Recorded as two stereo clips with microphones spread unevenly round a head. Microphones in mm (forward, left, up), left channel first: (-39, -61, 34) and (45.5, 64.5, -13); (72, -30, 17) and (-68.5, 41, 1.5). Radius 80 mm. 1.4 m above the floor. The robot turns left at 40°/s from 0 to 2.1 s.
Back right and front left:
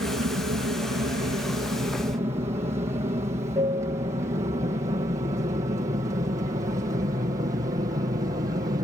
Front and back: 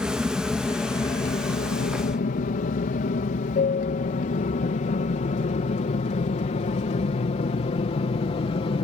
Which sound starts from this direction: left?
An aircraft, at 0.0 s.